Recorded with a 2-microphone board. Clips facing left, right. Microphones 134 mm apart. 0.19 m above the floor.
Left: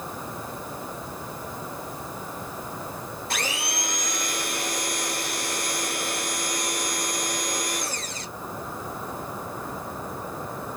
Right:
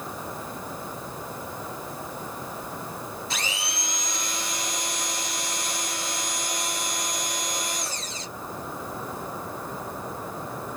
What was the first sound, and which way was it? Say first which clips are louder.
A blender: left 3 dB; 65° left (ahead or behind).